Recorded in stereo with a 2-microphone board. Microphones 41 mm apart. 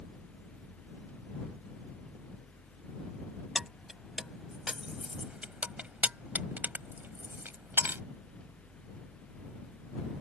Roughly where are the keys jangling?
Centre.